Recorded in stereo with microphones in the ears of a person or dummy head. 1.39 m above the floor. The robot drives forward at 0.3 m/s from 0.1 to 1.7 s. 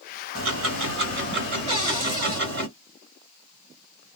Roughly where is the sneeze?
I don't hear a sneeze.